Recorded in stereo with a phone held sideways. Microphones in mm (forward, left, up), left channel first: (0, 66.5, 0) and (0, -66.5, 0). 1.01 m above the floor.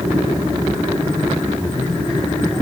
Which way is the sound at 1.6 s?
5° left (ahead or behind).